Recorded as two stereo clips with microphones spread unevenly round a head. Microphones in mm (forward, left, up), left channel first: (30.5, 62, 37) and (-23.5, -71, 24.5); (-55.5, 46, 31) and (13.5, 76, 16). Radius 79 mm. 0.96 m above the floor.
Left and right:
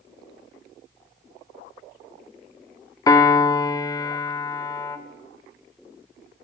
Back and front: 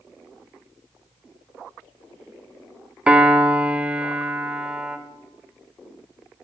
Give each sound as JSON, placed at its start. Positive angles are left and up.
{"t": 3.1, "sound": "a piano", "azimuth_deg": 20, "distance_m": 0.5}